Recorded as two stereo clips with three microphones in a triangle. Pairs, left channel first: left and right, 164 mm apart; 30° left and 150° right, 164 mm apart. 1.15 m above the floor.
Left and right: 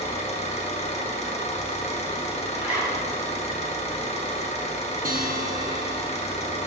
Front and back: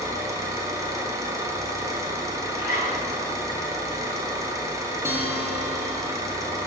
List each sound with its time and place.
0.0 s an engine running: 140° left, 1.2 m
2.5 s a zipper: 175° right, 2 m
5.0 s a guitar: 75° right, 1.1 m